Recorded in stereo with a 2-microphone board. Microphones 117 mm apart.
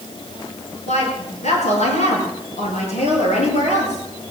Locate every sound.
0.9 s a woman speaking: 75° left (ahead or behind), 5.5 m